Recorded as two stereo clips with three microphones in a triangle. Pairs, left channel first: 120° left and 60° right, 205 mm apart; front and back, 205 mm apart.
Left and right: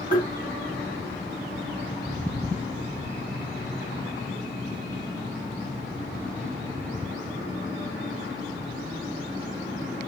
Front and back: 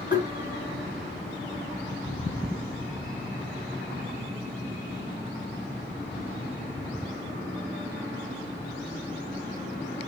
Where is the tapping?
125° left, 1.8 m.